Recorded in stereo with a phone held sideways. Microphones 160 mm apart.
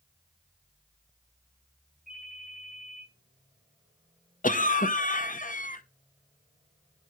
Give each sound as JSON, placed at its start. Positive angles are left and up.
{"t": 2.1, "sound": "a ringtone", "side_deg": -60, "distance_m": 6.5}
{"t": 4.4, "sound": "a cough", "side_deg": 55, "distance_m": 0.8}